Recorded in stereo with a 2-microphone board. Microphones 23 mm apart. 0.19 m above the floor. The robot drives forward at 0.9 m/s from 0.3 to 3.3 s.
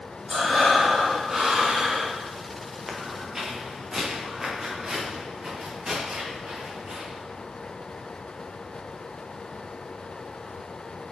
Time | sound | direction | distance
0.3 | breathing | 15° right (ahead or behind) | 2.5 m
2.9 | footsteps | 10° right (ahead or behind) | 1.8 m